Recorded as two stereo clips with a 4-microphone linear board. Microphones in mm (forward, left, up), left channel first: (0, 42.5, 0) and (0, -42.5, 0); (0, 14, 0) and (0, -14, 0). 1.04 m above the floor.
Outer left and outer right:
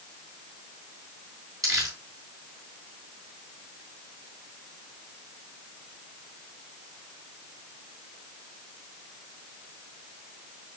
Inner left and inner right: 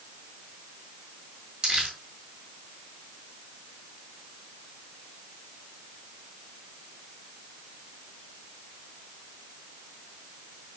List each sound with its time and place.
1.6 s crumpling: 40° right (ahead or behind), 4 m